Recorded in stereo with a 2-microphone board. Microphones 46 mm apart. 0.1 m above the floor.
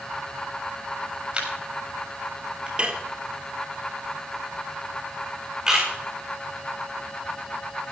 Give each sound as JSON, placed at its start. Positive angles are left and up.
{"t": 1.3, "sound": "a camera shutter", "side_deg": -20, "distance_m": 7.0}
{"t": 2.8, "sound": "dishes clattering", "side_deg": -25, "distance_m": 1.6}
{"t": 5.7, "sound": "a camera shutter", "side_deg": -15, "distance_m": 9.5}